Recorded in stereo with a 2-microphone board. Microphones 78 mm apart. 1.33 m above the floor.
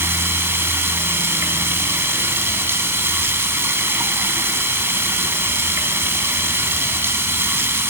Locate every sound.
0.0 s running water: 30° right (ahead or behind), 1.9 m